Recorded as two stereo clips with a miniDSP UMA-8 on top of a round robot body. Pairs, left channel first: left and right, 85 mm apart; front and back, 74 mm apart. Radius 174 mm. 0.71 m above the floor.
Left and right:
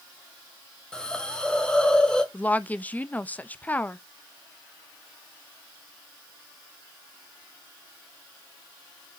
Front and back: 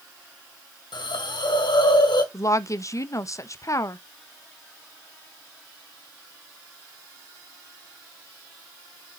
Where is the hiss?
10° left, 2 m.